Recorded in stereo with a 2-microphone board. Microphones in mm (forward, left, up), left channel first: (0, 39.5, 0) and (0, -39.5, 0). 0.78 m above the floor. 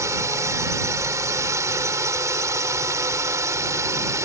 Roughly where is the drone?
Right.